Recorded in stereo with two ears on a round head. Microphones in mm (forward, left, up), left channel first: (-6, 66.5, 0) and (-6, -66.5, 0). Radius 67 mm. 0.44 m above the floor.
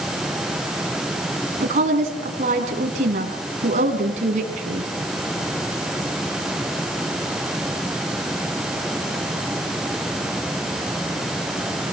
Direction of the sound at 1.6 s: 50° right (ahead or behind).